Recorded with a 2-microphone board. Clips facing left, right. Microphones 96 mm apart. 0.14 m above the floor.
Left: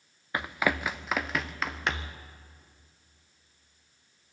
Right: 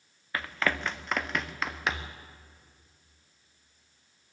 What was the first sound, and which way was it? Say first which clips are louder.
Running footsteps: left 2 dB; 20° left (ahead or behind).